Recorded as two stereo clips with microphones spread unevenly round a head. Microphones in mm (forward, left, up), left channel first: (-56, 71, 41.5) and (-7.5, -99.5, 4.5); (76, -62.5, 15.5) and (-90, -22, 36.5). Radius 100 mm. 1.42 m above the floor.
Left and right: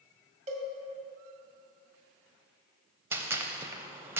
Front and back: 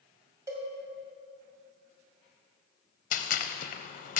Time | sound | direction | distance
0.5 | a cowbell | 130° right | 1.8 m
3.1 | a gunshot | 10° right | 0.6 m